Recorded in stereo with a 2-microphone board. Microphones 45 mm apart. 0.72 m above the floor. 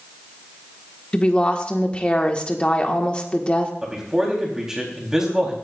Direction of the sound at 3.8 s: 10° right (ahead or behind).